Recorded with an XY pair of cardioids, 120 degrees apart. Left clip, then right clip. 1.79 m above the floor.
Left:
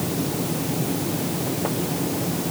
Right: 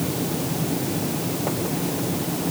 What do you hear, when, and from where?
Only background noise.